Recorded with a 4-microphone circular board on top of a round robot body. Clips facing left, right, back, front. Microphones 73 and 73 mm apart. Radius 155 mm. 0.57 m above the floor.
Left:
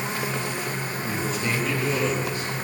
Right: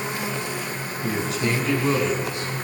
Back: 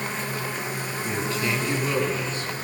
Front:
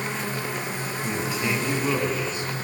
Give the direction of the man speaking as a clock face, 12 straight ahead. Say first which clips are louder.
Right 4 dB, even; 3 o'clock.